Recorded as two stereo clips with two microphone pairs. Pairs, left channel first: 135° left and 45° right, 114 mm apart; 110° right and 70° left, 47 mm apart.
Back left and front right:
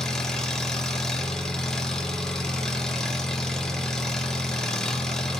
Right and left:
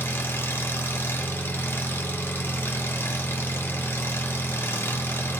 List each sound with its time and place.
0.0 s an engine running: 140° right, 2.5 m